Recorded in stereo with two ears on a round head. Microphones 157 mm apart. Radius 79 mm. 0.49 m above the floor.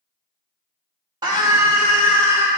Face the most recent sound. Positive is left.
turn(degrees=-10)  # may be behind; listen again after turning